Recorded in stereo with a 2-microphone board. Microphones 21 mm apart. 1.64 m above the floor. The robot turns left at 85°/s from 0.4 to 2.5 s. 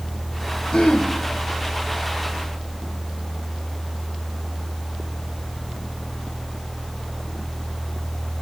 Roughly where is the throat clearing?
Behind left.